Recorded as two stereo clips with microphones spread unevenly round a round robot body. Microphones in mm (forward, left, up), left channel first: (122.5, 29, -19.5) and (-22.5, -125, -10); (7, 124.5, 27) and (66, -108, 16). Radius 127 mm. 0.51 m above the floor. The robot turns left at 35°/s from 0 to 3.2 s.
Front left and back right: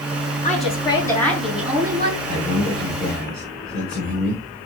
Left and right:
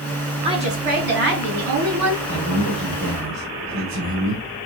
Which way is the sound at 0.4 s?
5° right.